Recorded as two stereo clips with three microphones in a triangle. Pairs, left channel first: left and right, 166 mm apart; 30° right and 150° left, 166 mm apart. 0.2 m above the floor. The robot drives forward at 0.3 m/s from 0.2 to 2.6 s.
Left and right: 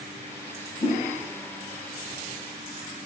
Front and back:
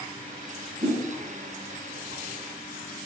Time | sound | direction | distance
0.8 | a whoosh | 125° left | 1.8 m